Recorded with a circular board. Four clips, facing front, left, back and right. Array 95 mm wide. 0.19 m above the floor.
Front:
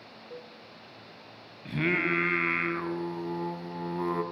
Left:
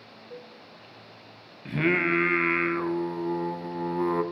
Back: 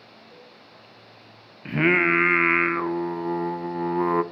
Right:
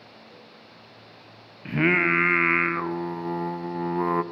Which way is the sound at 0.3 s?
30° left.